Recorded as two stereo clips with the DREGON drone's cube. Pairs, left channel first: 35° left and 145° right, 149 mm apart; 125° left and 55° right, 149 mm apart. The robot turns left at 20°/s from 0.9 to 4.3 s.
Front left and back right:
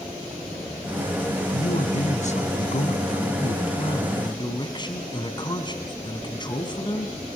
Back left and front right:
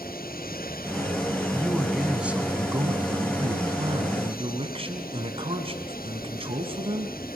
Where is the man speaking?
40° left, 2.5 m; by 7.2 s 15° right, 2.5 m.